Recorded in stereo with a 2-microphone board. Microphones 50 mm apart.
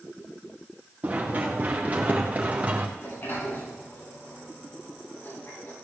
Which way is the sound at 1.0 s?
30° right (ahead or behind).